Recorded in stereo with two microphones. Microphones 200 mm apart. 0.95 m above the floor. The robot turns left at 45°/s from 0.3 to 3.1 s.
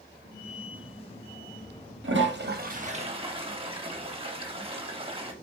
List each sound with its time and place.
2.0 s a toilet flushing: 105° right, 1.2 m; by 5.3 s 150° right, 1.2 m